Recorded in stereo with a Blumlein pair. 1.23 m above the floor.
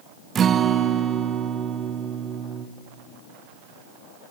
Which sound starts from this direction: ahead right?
A guitar, at 0.3 s.